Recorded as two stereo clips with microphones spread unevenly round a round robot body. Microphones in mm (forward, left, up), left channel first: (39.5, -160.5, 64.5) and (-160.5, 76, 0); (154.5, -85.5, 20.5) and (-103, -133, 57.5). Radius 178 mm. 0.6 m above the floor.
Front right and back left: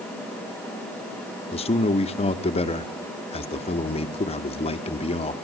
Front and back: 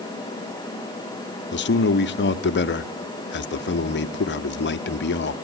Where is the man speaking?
30° left, 0.8 m.